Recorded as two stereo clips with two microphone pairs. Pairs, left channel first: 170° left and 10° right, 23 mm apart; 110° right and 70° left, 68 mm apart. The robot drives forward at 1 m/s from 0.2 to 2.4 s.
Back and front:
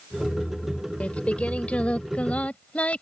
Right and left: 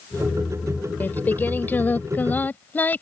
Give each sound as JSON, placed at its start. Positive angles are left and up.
{"t": 1.0, "sound": "singing", "azimuth_deg": -175}